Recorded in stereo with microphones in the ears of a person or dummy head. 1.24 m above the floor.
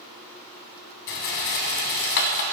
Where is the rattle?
60° left (ahead or behind), 1.9 m.